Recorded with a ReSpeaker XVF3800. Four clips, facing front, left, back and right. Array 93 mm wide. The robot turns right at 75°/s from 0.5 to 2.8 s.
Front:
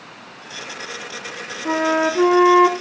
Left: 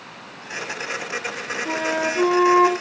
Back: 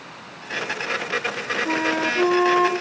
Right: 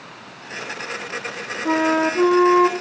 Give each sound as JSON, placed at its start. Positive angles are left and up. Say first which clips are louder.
{"t": 1.6, "sound": "a flute", "louder": "right 6 dB, front 6 dB", "azimuth_deg": -55, "distance_m": 1.1}